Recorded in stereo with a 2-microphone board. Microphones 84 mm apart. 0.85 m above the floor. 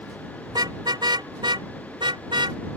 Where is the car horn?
60° right (ahead or behind); by 2.6 s 90° right.